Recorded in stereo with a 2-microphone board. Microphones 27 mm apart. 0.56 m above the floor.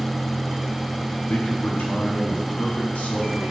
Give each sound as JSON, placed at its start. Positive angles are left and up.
{"t": 1.3, "sound": "a man speaking", "side_deg": 60, "distance_m": 5.0}